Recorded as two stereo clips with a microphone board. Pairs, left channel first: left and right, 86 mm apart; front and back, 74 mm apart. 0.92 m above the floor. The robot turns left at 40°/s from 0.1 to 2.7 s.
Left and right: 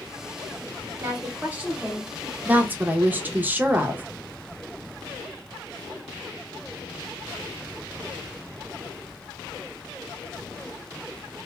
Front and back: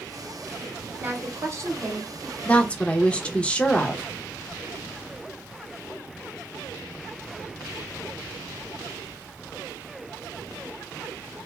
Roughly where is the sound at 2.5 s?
Ahead right.